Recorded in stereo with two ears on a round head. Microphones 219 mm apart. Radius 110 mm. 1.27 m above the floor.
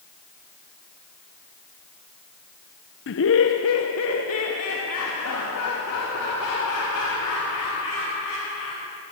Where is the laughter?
50° left (ahead or behind), 0.6 m; by 8.8 s 70° left (ahead or behind), 6 m.